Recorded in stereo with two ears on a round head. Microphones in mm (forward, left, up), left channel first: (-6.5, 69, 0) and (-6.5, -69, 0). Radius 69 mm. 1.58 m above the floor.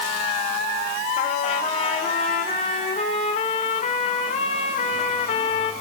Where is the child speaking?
I don't hear a child speaking.